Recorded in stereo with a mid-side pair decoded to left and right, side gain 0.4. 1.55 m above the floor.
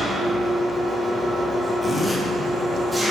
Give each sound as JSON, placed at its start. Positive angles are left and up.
{"t": 0.0, "sound": "an engine running", "azimuth_deg": -10, "distance_m": 1.5}
{"t": 1.8, "sound": "a zipper", "azimuth_deg": 10, "distance_m": 1.1}